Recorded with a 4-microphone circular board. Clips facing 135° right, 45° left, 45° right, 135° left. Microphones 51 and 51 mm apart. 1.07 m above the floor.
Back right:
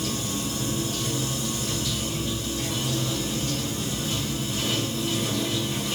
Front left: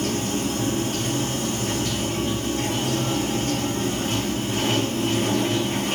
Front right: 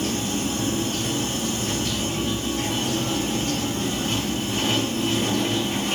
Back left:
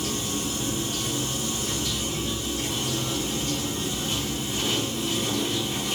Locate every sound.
0.0 s running water: 5° left, 0.9 m